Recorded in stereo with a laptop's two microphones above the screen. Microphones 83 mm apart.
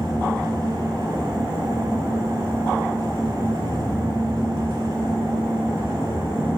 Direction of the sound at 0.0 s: 40° right (ahead or behind).